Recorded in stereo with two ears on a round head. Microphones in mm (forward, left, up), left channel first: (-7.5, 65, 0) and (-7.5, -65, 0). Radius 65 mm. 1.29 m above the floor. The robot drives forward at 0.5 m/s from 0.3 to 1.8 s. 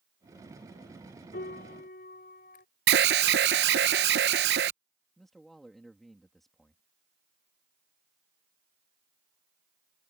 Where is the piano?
75° left (ahead or behind); by 2.6 s 70° left (ahead or behind).